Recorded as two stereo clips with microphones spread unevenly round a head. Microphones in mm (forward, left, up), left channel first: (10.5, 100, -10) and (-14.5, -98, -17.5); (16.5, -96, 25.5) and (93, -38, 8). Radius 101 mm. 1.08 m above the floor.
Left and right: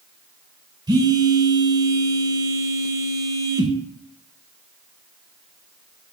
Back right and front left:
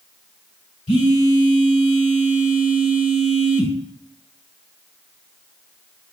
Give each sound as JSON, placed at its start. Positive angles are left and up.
{"t": 0.9, "sound": "a phone buzzing", "azimuth_deg": -170, "distance_m": 1.6}